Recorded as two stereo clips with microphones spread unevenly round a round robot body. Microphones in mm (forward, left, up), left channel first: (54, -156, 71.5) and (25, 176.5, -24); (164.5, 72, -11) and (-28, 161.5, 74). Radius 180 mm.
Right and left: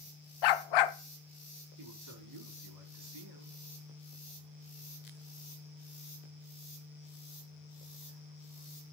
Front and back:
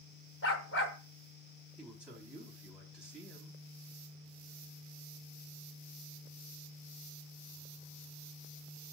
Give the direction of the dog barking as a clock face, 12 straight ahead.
3 o'clock.